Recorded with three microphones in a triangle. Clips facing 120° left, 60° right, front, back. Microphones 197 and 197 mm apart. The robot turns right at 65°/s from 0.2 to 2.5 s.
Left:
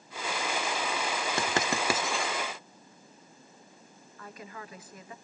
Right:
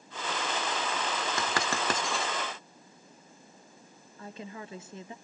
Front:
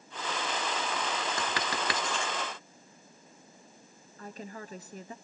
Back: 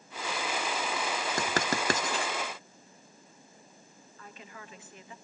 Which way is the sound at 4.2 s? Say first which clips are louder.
Right 3 dB, front 7 dB; 10° right.